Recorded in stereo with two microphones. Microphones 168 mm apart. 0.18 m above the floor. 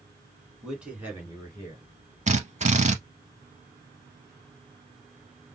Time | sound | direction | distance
0.6 | a man speaking | centre (ahead or behind) | 1.8 m
2.3 | a drill | 45° right (ahead or behind) | 0.6 m